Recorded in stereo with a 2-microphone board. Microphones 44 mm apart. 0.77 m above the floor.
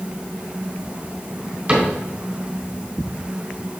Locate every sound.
1.7 s a cupboard door: 25° right (ahead or behind), 3 m